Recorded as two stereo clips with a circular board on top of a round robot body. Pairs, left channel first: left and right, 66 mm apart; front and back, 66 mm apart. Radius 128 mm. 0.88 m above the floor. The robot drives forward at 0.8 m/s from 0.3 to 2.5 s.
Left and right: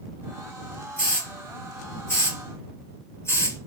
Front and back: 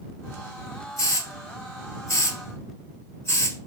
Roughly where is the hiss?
Ahead left.